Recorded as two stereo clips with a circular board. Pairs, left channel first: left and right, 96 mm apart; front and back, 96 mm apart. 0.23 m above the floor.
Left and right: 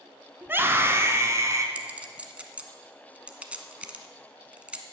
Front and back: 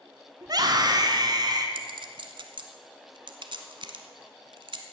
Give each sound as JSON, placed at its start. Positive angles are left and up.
{"t": 0.4, "sound": "a scream", "azimuth_deg": -155, "distance_m": 1.5}
{"t": 1.8, "sound": "a clink", "azimuth_deg": -165, "distance_m": 1.1}